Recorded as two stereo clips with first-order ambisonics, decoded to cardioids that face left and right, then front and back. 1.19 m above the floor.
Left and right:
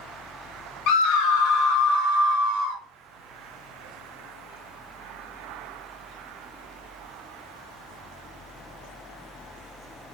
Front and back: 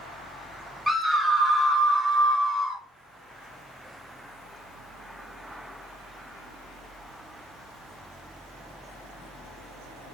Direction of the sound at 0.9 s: 90° left.